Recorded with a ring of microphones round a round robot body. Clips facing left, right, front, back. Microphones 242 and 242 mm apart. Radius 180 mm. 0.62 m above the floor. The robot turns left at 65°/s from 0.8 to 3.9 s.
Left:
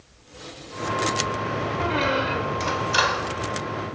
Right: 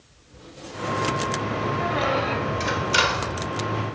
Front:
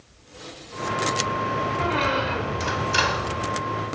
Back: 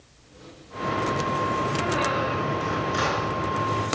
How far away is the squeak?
About 0.8 m.